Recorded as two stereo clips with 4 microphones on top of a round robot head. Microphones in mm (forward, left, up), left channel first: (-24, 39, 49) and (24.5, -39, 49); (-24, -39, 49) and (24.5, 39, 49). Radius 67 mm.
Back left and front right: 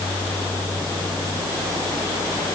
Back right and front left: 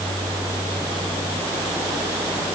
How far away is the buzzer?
I don't hear a buzzer.